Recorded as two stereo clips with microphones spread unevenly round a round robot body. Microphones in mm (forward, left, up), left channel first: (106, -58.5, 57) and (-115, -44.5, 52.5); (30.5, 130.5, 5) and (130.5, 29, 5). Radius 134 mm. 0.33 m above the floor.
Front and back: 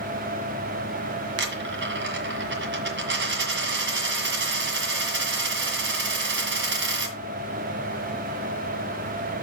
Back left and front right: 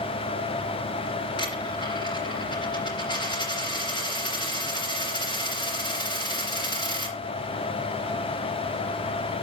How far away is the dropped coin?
About 1.7 m.